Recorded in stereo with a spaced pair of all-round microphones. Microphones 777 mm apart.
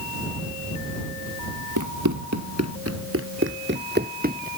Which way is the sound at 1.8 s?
25° right (ahead or behind).